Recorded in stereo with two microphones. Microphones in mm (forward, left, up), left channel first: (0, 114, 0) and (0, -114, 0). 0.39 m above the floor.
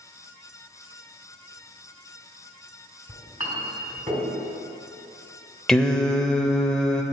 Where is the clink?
30° right (ahead or behind), 1.7 m.